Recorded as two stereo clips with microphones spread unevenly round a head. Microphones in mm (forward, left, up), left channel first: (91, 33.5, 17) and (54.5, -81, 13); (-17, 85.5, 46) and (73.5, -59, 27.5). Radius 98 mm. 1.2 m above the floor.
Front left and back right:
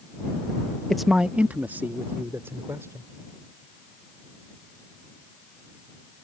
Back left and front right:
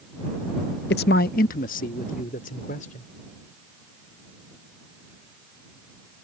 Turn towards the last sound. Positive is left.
turn(degrees=175)